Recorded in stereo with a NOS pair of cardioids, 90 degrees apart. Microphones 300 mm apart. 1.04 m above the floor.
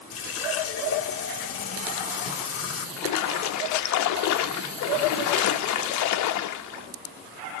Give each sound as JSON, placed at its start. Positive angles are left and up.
{"t": 0.1, "sound": "a running tap", "azimuth_deg": 50, "distance_m": 1.5}
{"t": 3.0, "sound": "a splash", "azimuth_deg": 65, "distance_m": 0.9}